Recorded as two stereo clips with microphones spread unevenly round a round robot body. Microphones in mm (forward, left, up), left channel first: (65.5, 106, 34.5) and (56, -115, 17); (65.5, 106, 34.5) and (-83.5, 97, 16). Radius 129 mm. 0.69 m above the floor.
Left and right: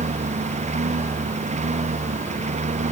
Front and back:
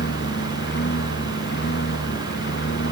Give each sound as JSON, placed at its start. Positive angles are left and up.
{"t": 0.0, "sound": "a lawn mower", "azimuth_deg": -35}